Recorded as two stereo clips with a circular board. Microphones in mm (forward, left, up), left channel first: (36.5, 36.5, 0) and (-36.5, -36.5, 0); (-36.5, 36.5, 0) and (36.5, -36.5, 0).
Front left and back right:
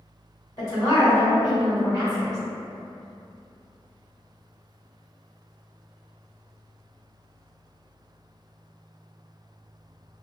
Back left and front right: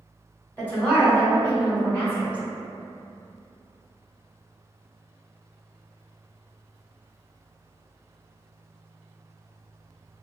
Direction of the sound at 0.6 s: 70° left.